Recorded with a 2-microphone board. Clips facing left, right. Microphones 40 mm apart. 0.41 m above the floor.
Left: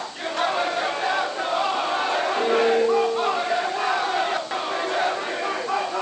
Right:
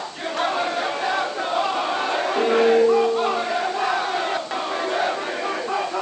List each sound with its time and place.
2.4 s a piano: 25° right (ahead or behind), 8.5 m